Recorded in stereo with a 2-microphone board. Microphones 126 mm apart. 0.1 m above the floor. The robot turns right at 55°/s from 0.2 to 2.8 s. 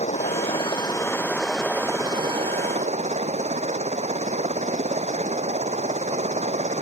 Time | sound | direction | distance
0.0 | a helicopter | 110° left | ?